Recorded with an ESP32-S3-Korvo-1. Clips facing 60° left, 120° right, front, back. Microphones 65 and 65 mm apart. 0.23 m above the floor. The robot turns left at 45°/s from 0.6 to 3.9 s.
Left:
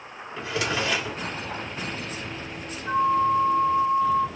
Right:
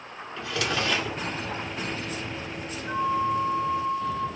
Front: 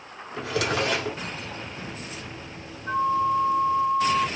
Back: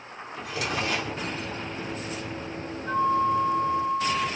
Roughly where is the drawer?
Ahead.